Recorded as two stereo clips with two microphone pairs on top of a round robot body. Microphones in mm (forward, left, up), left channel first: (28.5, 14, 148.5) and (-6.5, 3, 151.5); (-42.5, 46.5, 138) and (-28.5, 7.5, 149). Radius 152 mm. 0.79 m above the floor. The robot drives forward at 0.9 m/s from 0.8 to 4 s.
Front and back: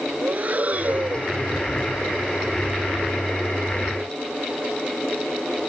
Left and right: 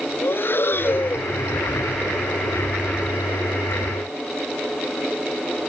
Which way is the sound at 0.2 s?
150° left.